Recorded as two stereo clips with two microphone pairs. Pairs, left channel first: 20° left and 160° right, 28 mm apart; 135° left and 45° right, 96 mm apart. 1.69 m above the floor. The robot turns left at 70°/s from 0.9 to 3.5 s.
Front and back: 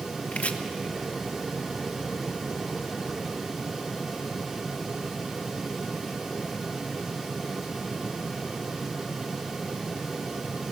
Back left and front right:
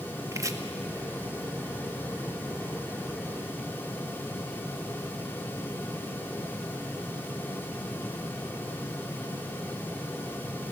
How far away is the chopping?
About 1.2 m.